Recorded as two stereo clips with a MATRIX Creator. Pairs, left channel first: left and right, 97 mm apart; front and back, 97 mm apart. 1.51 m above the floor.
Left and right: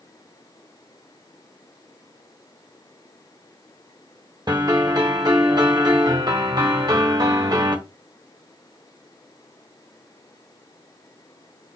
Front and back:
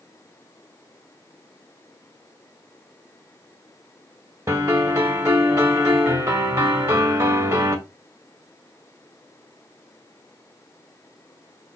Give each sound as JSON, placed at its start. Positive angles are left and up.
{"t": 4.5, "sound": "a piano", "azimuth_deg": -125, "distance_m": 1.1}